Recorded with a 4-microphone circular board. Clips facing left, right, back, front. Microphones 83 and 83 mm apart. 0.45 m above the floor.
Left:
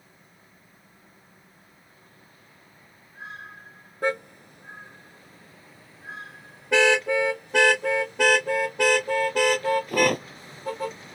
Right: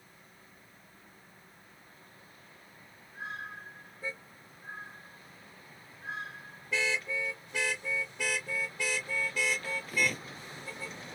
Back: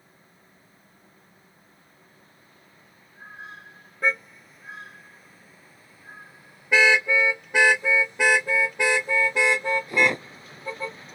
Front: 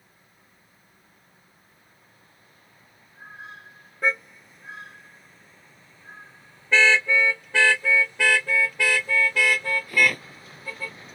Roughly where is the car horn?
Left.